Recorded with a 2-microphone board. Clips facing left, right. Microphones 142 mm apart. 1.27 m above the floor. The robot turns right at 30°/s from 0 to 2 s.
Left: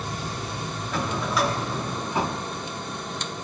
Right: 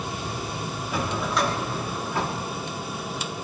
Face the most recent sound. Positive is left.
turn(degrees=20)